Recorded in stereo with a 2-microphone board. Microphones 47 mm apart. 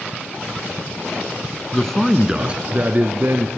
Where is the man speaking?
15° left (ahead or behind), 1.2 m; by 3.5 s 45° right (ahead or behind), 2.5 m.